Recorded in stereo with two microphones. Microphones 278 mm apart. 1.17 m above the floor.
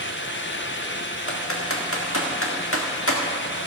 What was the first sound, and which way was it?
Typing on a keyboard, 55° left (ahead or behind).